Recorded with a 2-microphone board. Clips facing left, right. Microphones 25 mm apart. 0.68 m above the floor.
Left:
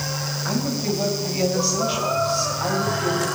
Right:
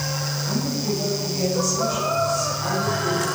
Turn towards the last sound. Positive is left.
turn(degrees=65)  # may be behind; listen again after turning